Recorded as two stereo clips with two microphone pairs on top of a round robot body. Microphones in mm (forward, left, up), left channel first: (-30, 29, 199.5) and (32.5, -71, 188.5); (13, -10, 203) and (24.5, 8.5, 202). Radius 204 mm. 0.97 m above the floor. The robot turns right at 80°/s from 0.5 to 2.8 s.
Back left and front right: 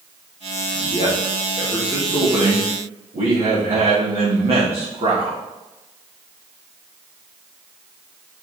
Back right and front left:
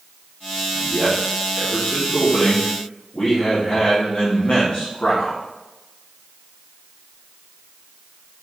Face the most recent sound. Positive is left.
turn(degrees=-80)